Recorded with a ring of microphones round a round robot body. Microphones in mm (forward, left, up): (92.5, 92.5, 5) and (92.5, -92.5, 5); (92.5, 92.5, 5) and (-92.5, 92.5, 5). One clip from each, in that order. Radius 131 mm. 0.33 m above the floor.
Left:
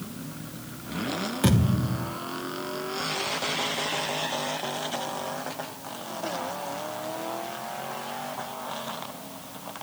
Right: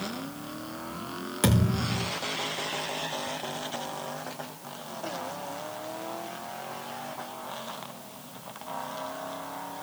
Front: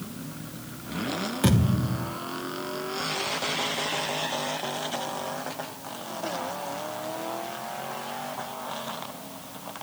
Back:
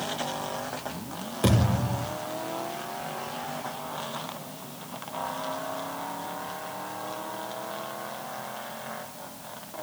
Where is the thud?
75° right, 6.5 m.